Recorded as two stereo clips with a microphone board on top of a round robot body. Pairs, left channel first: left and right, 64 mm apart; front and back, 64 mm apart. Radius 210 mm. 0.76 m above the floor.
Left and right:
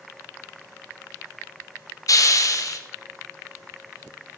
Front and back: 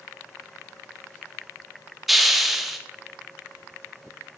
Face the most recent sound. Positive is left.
turn(degrees=95)